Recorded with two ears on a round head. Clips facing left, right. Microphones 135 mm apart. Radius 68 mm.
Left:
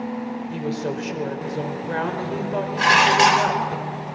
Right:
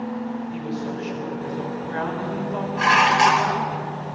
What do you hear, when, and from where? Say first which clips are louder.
0.5 s a woman speaking: left 2 dB; 60° left (ahead or behind), 3.5 m
2.8 s dishes clattering: even; 40° left (ahead or behind), 2.5 m